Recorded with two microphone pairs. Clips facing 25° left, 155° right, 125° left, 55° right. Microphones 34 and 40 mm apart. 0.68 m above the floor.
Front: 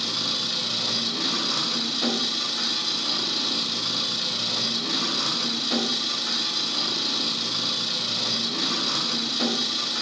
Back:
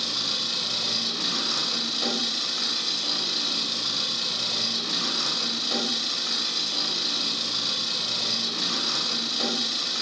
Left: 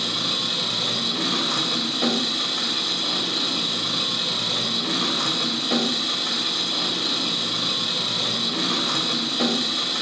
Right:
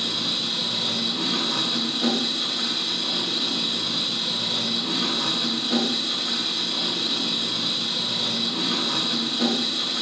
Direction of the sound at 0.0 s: 115° left.